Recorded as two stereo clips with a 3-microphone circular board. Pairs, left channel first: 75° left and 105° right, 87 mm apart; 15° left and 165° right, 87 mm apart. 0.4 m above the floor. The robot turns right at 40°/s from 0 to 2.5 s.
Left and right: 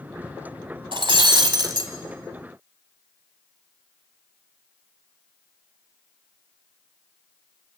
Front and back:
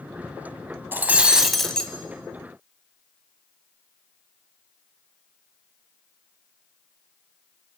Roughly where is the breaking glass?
Right.